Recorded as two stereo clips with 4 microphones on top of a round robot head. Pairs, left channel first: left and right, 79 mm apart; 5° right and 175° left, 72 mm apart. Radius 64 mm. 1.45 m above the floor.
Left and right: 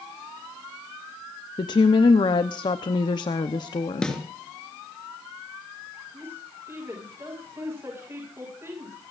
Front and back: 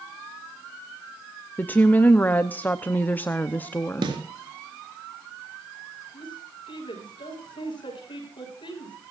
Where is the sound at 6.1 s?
25° right, 7.5 m.